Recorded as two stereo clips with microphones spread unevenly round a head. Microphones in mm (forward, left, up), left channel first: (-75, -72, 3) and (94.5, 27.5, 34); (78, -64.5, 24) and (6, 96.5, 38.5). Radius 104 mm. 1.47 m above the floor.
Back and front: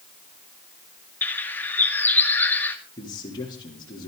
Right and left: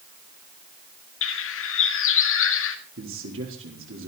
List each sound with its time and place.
1.2 s a bird: 65° right, 2.0 m
3.0 s a man speaking: 140° left, 3.5 m